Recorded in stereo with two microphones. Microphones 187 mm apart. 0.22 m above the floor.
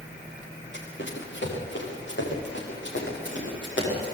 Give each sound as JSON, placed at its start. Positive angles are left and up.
{"t": 0.7, "sound": "running footsteps", "side_deg": 75, "distance_m": 7.0}